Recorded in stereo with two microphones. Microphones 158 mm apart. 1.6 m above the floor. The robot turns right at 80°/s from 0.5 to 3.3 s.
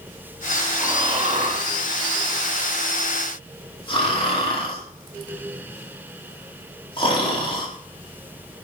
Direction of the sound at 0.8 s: 10° right (ahead or behind).